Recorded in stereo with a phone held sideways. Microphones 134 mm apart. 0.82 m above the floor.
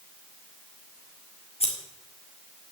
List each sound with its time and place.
1.6 s scissors: 50° left (ahead or behind), 2.5 m